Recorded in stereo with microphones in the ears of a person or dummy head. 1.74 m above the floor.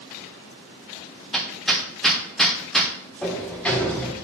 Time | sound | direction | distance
1.3 | hammering | centre (ahead or behind) | 0.7 m
3.2 | a sliding door | 10° left (ahead or behind) | 0.6 m